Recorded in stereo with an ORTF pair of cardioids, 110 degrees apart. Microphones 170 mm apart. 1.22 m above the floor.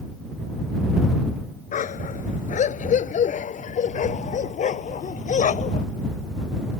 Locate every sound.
1.7 s a dog barking: 50° left; by 5.8 s 45° left